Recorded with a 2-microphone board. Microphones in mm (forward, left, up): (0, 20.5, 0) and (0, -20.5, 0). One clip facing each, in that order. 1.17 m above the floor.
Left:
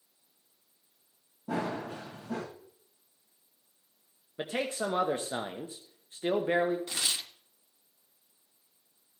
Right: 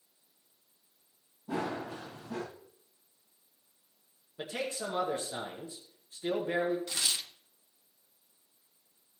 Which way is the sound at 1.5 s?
70° left (ahead or behind).